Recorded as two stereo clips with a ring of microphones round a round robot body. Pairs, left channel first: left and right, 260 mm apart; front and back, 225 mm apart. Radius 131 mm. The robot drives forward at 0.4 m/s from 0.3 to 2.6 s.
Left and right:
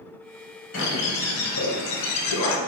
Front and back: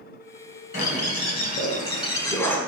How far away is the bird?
About 1.2 m.